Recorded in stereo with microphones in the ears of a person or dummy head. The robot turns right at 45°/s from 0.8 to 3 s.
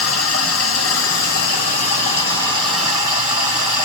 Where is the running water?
95° left, 2.5 m; by 3.9 s 165° right, 2.5 m.